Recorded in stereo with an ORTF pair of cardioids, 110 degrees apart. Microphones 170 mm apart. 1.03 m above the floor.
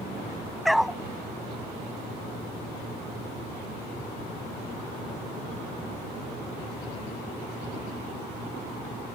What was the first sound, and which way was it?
A dog barking, straight ahead.